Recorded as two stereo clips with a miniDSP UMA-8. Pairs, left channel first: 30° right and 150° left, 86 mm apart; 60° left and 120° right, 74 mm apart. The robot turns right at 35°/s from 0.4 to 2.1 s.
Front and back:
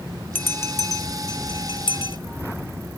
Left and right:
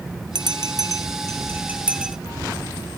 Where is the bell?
95° right, 0.8 m; by 2.2 s 35° right, 0.8 m.